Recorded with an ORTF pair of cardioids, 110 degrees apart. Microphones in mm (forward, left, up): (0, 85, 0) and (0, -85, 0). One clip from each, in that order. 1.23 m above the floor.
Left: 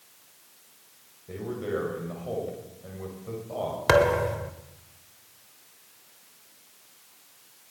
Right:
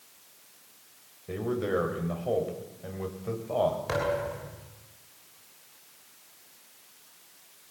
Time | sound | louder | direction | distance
1.3 | a man speaking | right 2 dB | 35° right | 7.5 m
3.9 | a thud | left 8 dB | 70° left | 3 m